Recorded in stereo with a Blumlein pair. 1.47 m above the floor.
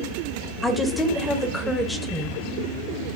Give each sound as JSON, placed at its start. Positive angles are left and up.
{"t": 0.6, "sound": "a woman speaking", "azimuth_deg": 5, "distance_m": 0.7}